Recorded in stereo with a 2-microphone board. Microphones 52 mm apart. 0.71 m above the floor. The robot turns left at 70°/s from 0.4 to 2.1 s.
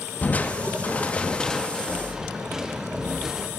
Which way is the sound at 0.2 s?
100° left.